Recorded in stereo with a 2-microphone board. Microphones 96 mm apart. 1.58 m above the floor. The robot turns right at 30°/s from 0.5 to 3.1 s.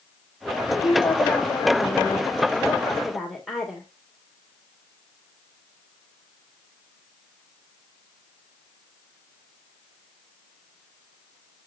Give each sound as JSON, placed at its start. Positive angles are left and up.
{"t": 0.8, "sound": "a woman speaking", "azimuth_deg": 115, "distance_m": 2.0}